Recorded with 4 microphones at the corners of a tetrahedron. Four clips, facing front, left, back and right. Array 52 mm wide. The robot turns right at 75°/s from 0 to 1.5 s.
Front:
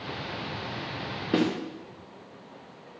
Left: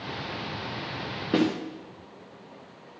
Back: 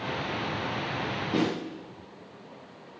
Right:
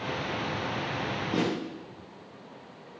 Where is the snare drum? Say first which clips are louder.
Left 5 dB, front 2 dB; 45° left, 9 m; by 1.5 s 55° left, 9 m.